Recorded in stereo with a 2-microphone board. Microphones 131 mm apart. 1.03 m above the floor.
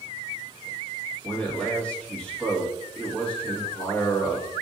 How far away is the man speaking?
About 1.4 m.